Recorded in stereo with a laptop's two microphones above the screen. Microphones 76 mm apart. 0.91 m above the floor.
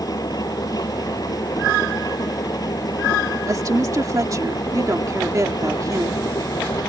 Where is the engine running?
50° left (ahead or behind).